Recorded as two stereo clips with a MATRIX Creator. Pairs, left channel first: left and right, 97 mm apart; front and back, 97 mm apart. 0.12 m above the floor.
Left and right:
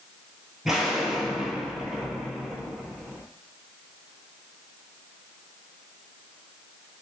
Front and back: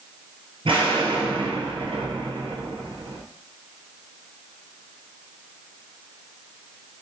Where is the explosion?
175° right, 1.1 m.